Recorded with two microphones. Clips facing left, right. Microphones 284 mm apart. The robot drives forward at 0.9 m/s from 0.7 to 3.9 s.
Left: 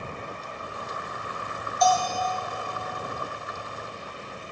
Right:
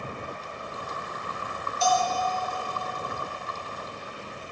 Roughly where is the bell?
Right.